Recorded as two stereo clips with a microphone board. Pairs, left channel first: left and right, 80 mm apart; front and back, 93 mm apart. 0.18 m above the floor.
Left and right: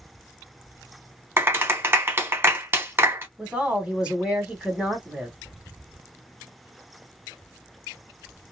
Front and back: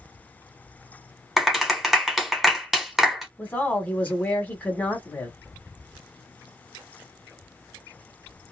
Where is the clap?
95° right, 0.8 m.